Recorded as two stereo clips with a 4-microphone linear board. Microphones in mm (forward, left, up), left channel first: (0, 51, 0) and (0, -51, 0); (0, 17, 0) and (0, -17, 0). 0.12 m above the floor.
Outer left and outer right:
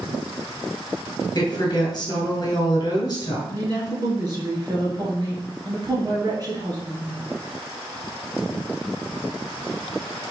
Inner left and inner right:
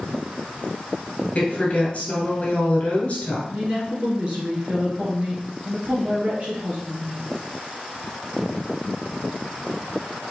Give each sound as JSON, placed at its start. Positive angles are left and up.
{"t": 1.4, "sound": "a woman speaking", "side_deg": 40, "distance_m": 2.0}
{"t": 3.5, "sound": "a woman speaking", "side_deg": -40, "distance_m": 1.9}